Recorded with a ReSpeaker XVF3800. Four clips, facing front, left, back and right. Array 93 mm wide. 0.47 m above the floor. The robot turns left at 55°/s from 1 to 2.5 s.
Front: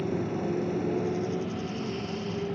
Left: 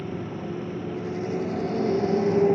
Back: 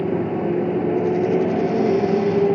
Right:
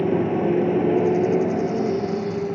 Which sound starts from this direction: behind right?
A motorcycle, at 0.0 s.